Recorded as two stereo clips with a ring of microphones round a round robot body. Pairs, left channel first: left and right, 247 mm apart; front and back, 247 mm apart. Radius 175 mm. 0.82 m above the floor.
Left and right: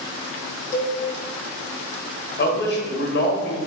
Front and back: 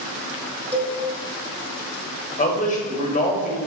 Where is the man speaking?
55° left, 1.0 m.